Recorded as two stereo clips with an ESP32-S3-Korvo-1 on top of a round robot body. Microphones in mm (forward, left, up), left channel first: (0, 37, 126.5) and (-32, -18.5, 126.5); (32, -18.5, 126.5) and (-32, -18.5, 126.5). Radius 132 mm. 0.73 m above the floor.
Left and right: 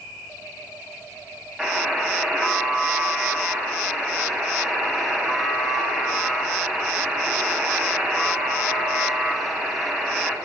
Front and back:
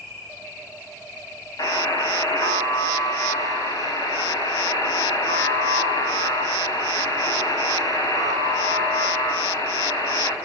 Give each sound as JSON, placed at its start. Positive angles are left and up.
{"t": 1.6, "sound": "a buzzer", "azimuth_deg": -25, "distance_m": 6.5}